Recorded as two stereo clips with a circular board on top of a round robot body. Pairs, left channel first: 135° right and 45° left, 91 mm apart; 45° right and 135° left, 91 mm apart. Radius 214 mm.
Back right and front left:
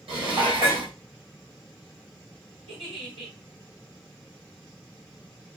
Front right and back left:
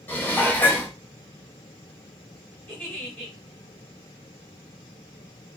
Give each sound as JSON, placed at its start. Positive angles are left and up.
{"t": 0.1, "sound": "dishes clattering", "azimuth_deg": 25, "distance_m": 1.3}
{"t": 2.7, "sound": "a giggle", "azimuth_deg": 30, "distance_m": 1.4}